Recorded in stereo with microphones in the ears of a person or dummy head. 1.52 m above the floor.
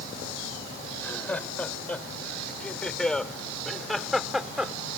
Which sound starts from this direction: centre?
Laughter, at 0.9 s.